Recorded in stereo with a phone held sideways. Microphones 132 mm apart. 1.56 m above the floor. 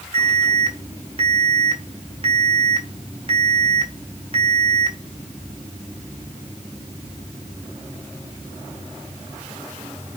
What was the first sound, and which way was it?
An alarm, 45° right (ahead or behind).